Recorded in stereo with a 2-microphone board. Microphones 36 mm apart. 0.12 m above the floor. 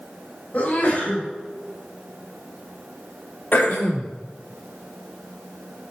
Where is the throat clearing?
65° left (ahead or behind), 3.5 m.